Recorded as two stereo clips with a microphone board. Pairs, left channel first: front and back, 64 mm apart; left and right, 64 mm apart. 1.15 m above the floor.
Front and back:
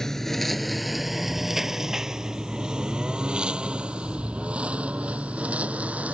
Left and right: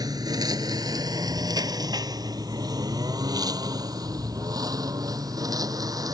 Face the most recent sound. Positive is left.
turn(degrees=-110)